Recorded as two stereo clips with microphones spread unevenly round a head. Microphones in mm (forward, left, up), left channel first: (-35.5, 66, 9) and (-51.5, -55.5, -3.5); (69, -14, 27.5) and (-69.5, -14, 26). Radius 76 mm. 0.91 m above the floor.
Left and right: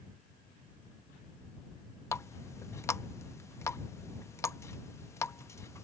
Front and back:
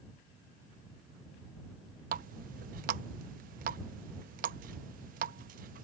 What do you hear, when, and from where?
2.1 s a running tap: 150° left